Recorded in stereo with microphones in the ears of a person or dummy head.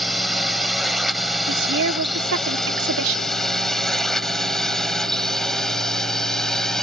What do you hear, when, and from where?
0.0 s a drone: centre (ahead or behind)
1.5 s a woman speaking: 65° right (ahead or behind)